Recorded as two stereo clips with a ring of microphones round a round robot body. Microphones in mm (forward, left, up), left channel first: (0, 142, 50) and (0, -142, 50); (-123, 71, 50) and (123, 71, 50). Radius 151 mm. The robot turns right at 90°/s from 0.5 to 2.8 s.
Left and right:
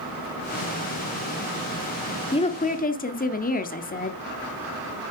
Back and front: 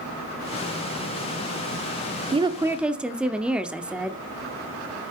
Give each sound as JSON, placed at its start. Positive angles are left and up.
{"t": 2.3, "sound": "a woman speaking", "azimuth_deg": 40, "distance_m": 0.9}